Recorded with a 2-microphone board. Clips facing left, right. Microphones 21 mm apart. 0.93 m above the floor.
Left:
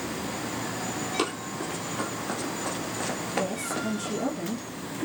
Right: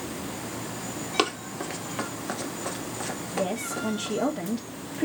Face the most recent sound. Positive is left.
turn(degrees=-55)  # may be behind; listen again after turning